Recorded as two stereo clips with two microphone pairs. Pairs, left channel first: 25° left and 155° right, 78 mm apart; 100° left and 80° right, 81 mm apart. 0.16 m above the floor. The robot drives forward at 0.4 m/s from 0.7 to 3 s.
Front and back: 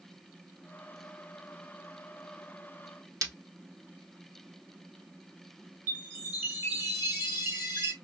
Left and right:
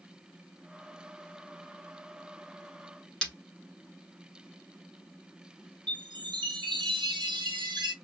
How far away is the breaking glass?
About 1.1 m.